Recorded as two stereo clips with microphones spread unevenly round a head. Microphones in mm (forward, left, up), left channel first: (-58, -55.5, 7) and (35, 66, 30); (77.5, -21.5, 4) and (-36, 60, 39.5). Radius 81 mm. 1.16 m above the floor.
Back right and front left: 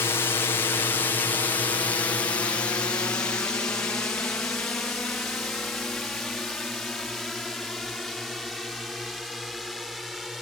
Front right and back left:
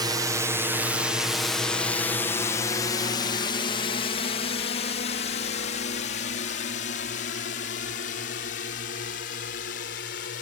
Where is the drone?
155° right; by 10.4 s 35° right.